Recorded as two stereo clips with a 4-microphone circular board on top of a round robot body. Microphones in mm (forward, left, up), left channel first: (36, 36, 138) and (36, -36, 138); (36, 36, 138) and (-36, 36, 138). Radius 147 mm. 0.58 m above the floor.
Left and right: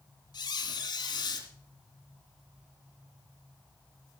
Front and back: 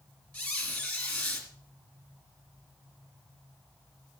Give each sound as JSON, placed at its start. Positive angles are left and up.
{"t": 0.3, "sound": "a squeak", "azimuth_deg": 65, "distance_m": 3.0}